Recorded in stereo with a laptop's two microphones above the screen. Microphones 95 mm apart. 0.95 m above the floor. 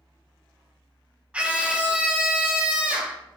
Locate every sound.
0.0 s a fan: 45° left (ahead or behind), 1.4 m
1.3 s a scream: 10° right (ahead or behind), 0.7 m